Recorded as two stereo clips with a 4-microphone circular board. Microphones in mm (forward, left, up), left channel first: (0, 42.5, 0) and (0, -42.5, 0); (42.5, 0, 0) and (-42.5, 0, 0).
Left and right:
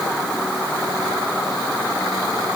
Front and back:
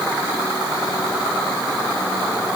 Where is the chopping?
No chopping in this recording.